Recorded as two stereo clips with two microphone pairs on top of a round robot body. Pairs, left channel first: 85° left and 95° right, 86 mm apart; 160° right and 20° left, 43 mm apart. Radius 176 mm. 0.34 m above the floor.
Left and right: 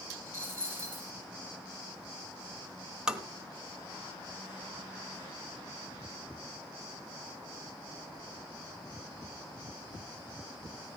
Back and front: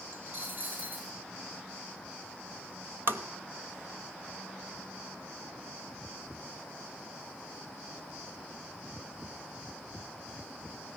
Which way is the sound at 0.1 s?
25° right.